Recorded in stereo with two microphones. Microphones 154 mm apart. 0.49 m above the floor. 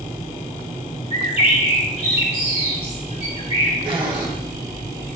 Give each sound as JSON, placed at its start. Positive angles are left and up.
{"t": 1.1, "sound": "a bird", "side_deg": 40, "distance_m": 1.7}
{"t": 3.9, "sound": "a zipper", "side_deg": -35, "distance_m": 1.8}